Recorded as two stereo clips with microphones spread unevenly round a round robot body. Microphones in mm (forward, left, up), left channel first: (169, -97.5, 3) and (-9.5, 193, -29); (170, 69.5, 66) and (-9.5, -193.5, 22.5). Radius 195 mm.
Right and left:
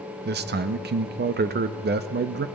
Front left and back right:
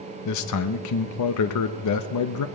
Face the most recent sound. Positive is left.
turn(degrees=75)